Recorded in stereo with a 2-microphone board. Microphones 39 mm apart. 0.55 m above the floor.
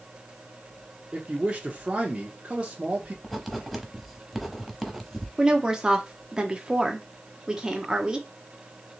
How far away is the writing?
About 0.9 m.